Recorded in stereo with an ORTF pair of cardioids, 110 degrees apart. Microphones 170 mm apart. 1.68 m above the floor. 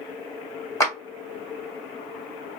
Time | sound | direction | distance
0.8 | a clap | 20° left | 1.4 m